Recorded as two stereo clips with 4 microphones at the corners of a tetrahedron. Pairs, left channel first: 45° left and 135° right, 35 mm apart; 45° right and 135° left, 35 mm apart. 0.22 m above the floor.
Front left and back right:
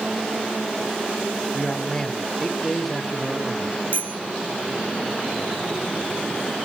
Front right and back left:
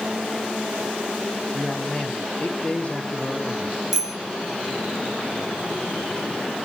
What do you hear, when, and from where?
1.5 s a man speaking: 5° left, 1.7 m; by 3.8 s 50° right, 2.5 m
3.9 s a bicycle bell: 145° right, 4.5 m